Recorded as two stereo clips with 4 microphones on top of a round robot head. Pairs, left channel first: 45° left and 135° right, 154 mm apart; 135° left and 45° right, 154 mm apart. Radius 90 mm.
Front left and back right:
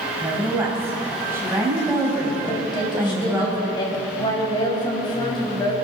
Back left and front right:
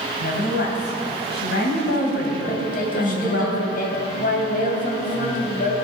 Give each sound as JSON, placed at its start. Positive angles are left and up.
{"t": 0.2, "sound": "a woman speaking", "azimuth_deg": 150, "distance_m": 3.5}
{"t": 2.5, "sound": "a woman speaking", "azimuth_deg": 105, "distance_m": 3.5}